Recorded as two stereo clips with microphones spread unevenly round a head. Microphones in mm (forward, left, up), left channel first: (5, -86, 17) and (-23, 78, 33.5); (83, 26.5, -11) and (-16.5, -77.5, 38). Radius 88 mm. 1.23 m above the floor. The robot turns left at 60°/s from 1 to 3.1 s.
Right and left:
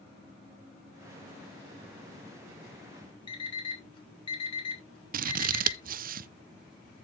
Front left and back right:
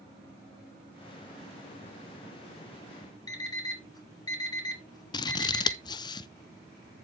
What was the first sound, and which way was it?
An alarm clock, 20° right.